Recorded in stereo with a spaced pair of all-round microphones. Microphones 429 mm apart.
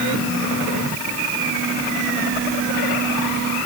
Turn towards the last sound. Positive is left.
No sound to turn to.